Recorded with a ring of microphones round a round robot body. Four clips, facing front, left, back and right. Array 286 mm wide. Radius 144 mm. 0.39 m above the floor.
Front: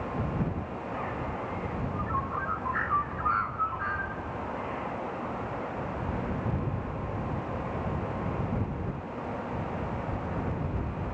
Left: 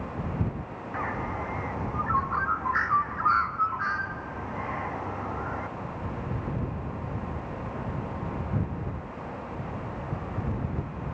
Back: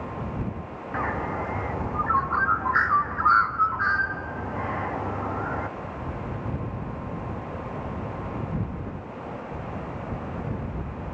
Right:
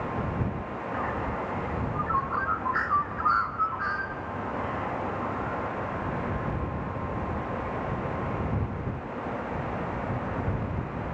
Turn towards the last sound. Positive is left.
turn(degrees=175)